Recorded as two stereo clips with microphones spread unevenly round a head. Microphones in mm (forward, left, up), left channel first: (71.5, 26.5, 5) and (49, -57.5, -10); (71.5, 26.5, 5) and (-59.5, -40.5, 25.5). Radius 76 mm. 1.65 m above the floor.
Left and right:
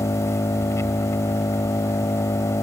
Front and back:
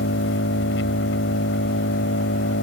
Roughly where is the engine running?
Ahead left.